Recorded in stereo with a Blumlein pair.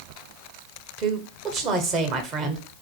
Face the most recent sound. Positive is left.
turn(degrees=-35)